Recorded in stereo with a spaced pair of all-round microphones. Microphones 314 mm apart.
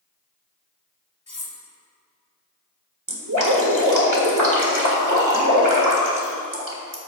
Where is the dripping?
75° right (ahead or behind), 1.8 m.